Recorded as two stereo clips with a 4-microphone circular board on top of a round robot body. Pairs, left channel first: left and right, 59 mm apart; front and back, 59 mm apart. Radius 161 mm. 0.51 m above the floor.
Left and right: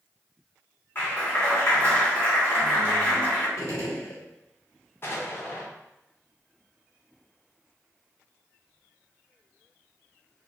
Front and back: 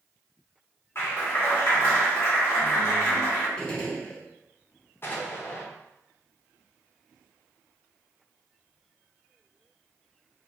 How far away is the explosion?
About 0.9 m.